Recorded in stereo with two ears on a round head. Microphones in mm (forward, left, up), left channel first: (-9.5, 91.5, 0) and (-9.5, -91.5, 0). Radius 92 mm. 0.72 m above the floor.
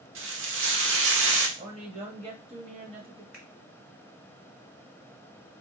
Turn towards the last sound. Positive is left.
turn(degrees=-5)  # may be behind; listen again after turning